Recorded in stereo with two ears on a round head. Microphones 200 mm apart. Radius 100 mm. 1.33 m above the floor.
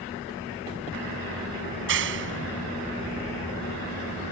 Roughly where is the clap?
Right.